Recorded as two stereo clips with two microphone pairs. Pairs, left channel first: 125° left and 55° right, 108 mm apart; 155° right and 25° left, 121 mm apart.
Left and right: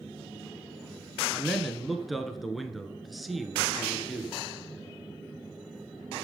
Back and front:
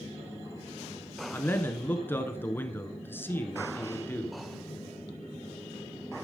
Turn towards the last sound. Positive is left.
turn(degrees=-145)